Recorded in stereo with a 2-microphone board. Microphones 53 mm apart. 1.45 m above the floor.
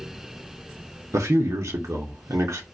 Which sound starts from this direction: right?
A man speaking, at 1.1 s.